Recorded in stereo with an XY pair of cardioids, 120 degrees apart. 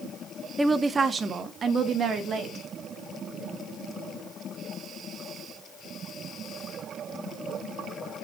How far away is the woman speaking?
About 0.6 m.